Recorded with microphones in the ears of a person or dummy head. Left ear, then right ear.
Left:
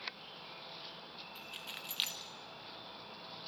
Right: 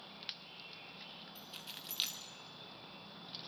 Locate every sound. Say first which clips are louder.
1.4 s keys jangling: left 5 dB; 15° left (ahead or behind), 1.7 m